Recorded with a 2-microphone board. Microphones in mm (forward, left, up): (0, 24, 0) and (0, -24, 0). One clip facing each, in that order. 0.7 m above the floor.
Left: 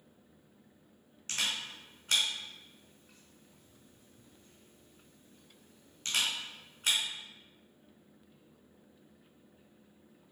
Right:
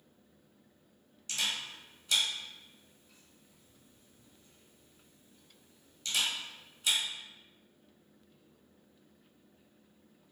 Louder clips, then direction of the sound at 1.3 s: Even; 45° left (ahead or behind).